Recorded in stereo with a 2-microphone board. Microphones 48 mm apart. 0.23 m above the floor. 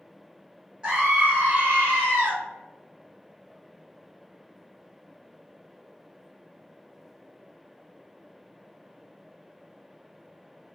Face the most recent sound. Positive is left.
turn(degrees=-40)  # may be behind; listen again after turning